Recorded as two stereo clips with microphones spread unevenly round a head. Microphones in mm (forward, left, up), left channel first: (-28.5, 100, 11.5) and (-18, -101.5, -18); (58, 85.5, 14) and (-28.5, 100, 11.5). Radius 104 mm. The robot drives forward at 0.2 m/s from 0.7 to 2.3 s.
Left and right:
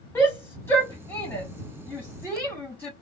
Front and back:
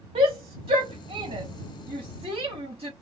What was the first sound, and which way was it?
A shout, 170° left.